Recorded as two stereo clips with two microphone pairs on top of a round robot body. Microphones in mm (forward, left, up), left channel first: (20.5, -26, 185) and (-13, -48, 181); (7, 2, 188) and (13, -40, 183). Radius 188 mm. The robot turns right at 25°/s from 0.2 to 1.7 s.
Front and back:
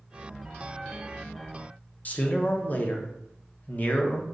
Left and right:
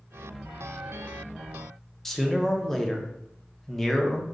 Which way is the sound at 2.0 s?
10° left.